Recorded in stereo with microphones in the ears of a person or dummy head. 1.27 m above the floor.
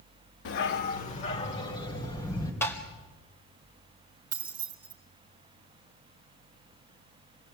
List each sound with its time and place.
0.5 s a dog barking: 60° left (ahead or behind), 1.4 m; by 2.5 s 20° left (ahead or behind), 4 m
2.6 s tapping: 15° left (ahead or behind), 3 m
4.3 s keys jangling: 25° right (ahead or behind), 3 m